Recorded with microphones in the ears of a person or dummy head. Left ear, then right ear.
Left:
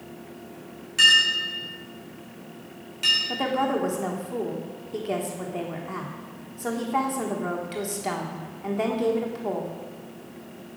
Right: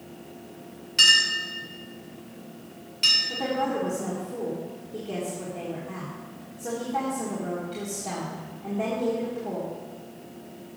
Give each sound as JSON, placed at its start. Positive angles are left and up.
{"t": 1.0, "sound": "a clink", "side_deg": -5, "distance_m": 3.5}
{"t": 3.3, "sound": "a woman speaking", "side_deg": 65, "distance_m": 1.3}